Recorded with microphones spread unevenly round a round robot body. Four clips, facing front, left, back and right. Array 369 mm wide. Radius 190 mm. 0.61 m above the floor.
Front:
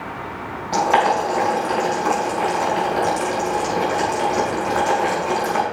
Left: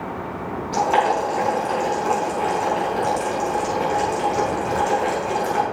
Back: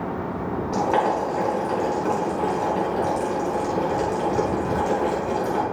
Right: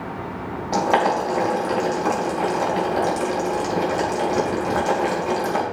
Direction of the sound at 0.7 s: 105° right.